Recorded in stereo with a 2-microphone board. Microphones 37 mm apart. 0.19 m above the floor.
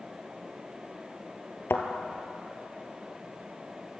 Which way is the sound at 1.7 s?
70° left (ahead or behind).